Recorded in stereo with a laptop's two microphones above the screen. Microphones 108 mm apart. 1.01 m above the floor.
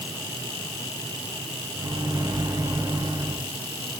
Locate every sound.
1.8 s a microwave: 45° right (ahead or behind), 6 m